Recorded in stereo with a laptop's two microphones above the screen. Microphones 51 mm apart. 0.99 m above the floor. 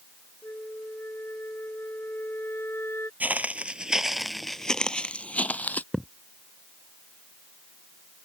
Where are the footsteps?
35° right (ahead or behind); by 5.8 s 35° left (ahead or behind).